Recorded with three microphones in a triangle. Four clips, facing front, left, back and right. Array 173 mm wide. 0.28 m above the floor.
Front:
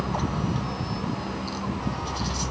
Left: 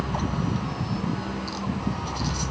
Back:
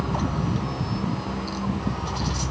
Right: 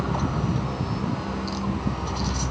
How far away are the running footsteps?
I don't hear running footsteps.